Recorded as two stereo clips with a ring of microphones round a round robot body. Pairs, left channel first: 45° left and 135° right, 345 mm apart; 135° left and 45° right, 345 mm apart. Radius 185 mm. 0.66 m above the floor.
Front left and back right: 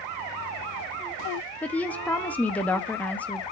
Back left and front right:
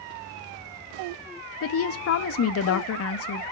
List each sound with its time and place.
1.6 s a woman speaking: 130° left, 0.9 m